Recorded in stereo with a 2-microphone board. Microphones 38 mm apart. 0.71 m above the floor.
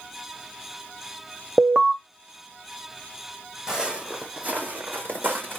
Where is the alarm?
20° right (ahead or behind), 0.8 m.